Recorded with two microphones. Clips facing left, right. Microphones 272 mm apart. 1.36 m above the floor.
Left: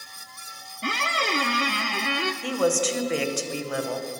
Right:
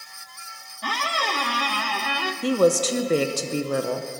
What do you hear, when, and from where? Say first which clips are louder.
0.8 s a squeak: left 1 dB; 25° left (ahead or behind), 0.6 m
2.4 s a woman speaking: right 5 dB; 45° right (ahead or behind), 0.9 m